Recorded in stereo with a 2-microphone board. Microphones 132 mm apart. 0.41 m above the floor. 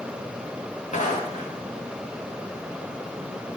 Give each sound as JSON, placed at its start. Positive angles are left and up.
{"t": 0.9, "sound": "footsteps", "side_deg": 65, "distance_m": 2.5}